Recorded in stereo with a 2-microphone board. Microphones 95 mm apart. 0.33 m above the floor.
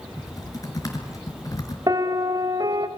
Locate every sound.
0.2 s typing on a keyboard: 40° left (ahead or behind), 4.5 m
1.9 s a piano: 45° right (ahead or behind), 1.5 m